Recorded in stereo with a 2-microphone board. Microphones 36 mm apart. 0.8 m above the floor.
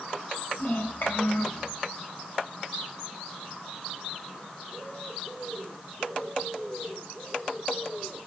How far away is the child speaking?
About 3.5 m.